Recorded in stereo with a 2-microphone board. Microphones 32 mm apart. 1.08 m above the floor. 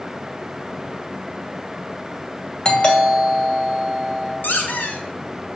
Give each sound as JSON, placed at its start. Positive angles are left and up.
{"t": 2.6, "sound": "a doorbell", "side_deg": 30, "distance_m": 2.0}
{"t": 4.4, "sound": "a squeak", "side_deg": 75, "distance_m": 1.7}